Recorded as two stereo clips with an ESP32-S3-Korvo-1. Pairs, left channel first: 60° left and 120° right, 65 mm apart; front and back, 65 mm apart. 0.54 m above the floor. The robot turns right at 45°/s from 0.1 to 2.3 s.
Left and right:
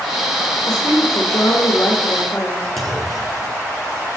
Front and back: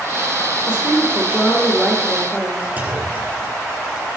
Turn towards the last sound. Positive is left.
turn(degrees=150)